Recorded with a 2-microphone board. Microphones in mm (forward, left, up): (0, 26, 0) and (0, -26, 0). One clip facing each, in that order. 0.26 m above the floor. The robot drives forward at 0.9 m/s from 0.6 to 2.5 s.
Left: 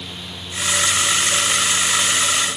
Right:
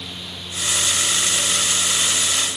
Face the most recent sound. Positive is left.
No sound to turn to.